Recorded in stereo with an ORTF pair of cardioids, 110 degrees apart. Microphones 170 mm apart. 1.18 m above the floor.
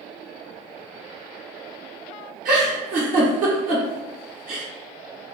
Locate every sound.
2.5 s a giggle: 55° right, 1.0 m